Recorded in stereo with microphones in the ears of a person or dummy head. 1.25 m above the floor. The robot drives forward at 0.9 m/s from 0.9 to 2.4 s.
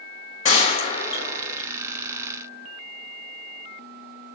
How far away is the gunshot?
About 1.4 m.